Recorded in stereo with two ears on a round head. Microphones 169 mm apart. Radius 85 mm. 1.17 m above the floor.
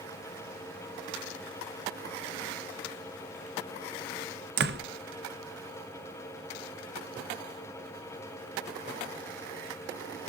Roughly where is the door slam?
Right.